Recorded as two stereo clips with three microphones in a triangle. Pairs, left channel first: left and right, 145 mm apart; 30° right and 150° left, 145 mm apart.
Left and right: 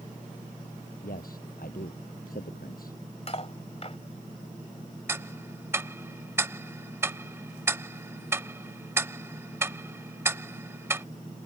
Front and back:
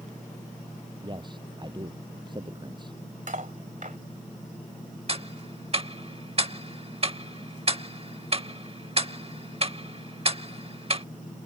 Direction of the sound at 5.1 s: 160° right.